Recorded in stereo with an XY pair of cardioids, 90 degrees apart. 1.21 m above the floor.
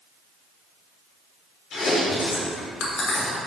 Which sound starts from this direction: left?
Chewing, at 1.7 s.